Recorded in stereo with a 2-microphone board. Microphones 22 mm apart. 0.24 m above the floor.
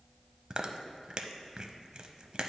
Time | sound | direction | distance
0.5 | chewing | 35° right (ahead or behind) | 0.5 m